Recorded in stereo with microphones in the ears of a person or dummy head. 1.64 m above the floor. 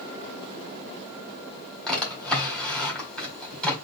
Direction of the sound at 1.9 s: 5° left (ahead or behind).